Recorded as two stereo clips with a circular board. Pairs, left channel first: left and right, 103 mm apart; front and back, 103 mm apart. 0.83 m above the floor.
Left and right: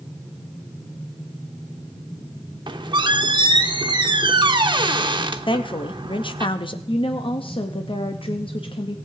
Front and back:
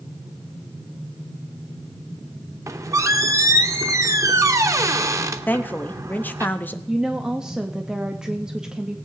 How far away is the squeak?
About 0.7 m.